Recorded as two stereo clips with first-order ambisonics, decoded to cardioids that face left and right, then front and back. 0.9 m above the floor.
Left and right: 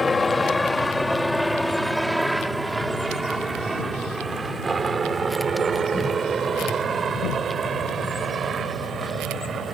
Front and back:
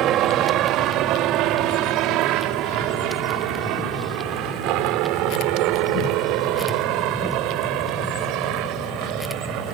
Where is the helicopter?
160° left; by 9.8 s 150° right.